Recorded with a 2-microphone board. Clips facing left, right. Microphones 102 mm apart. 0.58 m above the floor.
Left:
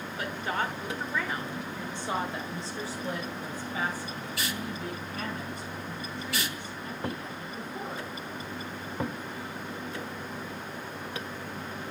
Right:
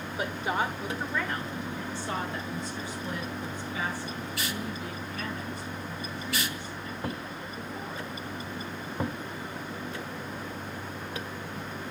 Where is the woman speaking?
20° right (ahead or behind), 1.8 m; by 8.1 s 55° left (ahead or behind), 6 m.